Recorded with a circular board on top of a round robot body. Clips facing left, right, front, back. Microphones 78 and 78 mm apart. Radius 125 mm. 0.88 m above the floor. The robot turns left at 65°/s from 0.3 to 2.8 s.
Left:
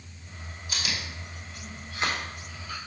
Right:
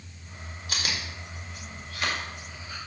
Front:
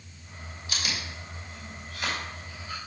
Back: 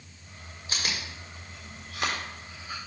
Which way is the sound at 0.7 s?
120° right.